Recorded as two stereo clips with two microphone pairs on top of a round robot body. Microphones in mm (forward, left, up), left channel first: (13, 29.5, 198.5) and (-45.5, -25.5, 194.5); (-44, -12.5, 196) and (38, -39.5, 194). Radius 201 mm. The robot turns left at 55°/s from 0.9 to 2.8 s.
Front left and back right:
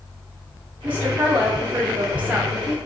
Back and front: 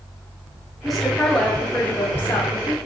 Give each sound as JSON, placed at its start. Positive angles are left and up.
{"t": 0.8, "sound": "a woman speaking", "azimuth_deg": -100, "distance_m": 0.9}